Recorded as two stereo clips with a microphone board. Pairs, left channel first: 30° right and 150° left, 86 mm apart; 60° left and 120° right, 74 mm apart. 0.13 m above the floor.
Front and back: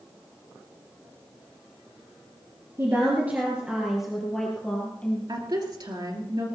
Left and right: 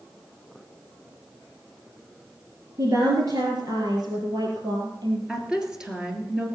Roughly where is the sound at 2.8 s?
Behind right.